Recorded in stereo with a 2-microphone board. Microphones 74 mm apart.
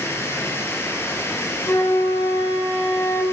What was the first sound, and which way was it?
Running water, 35° left (ahead or behind).